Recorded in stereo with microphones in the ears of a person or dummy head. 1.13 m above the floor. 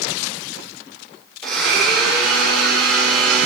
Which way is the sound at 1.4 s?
5° left (ahead or behind).